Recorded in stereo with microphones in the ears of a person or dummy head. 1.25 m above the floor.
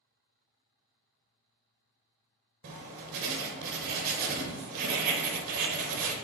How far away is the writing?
About 0.8 m.